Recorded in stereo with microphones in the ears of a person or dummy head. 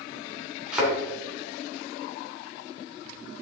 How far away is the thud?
About 3 m.